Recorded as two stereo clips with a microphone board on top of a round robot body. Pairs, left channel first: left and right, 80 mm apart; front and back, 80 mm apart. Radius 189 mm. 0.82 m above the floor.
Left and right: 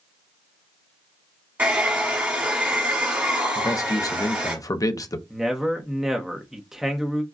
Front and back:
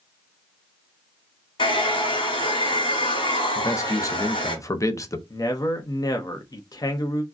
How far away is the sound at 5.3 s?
About 1.1 m.